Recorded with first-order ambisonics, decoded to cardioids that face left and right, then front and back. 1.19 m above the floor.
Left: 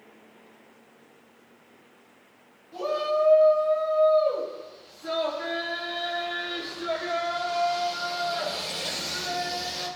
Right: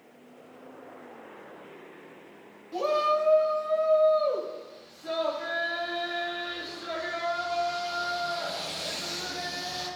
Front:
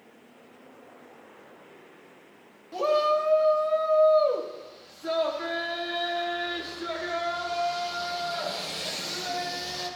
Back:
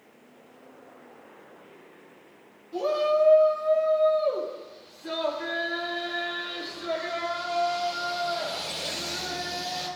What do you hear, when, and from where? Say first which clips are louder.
2.7 s a shout: right 1 dB, front 1 dB; 25° right, 1.8 m; by 9.9 s 50° left, 5.5 m